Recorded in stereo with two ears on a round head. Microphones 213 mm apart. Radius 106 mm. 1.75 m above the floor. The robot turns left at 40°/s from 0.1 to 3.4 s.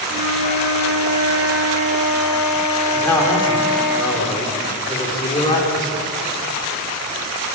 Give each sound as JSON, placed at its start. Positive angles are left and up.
{"t": 0.1, "sound": "a flute", "azimuth_deg": -100, "distance_m": 5.5}
{"t": 2.9, "sound": "a man speaking", "side_deg": 5, "distance_m": 4.5}